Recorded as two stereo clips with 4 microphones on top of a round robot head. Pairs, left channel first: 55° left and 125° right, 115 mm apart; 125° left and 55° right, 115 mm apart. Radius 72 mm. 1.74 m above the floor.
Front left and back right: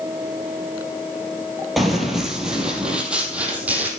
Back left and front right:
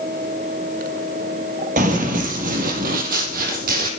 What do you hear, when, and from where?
1.8 s running footsteps: 35° right, 3 m; by 3.9 s 50° right, 4 m